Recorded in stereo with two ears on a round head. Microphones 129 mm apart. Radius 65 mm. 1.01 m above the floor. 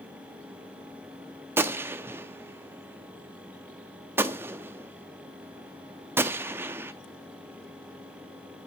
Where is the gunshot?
15° right (ahead or behind), 0.5 m.